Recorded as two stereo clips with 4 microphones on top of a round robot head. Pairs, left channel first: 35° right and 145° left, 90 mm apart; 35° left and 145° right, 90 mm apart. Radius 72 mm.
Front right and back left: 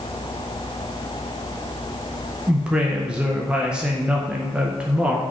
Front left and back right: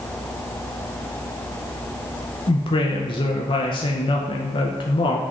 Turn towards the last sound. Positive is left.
turn(degrees=65)